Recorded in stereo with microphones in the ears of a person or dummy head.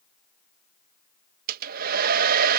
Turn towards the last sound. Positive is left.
turn(degrees=-45)  # may be behind; listen again after turning